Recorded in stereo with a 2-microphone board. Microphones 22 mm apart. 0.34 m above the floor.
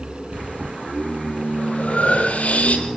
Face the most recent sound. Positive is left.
turn(degrees=85)